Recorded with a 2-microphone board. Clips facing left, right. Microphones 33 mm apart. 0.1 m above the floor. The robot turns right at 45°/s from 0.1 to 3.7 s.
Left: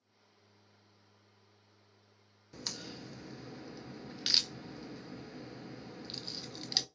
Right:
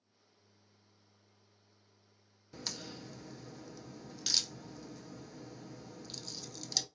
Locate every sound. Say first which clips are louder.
2.5 s a crack: even; centre (ahead or behind), 0.5 m; by 6.8 s 35° left (ahead or behind), 0.5 m